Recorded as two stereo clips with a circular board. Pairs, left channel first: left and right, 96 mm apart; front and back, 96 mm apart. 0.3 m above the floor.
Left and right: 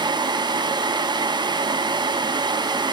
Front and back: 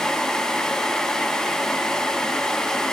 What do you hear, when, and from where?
Only background noise.